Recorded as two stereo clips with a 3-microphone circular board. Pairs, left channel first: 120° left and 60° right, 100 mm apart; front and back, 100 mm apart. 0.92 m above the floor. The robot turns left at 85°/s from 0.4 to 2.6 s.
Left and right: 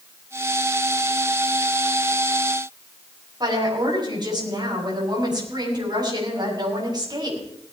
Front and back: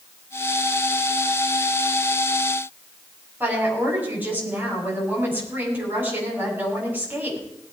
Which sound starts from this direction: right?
A woman speaking, at 3.4 s.